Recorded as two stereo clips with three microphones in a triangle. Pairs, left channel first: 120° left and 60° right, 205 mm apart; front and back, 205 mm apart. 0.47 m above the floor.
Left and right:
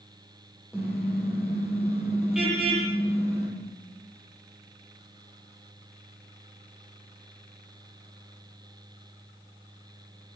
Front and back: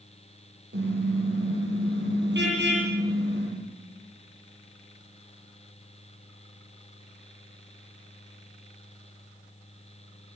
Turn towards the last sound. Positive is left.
turn(degrees=-145)